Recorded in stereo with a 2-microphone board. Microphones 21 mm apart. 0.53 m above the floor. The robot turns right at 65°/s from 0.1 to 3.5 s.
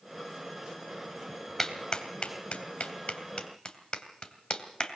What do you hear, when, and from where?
1.6 s a clap: 15° left (ahead or behind), 2.5 m; by 5.0 s 40° left (ahead or behind), 2.5 m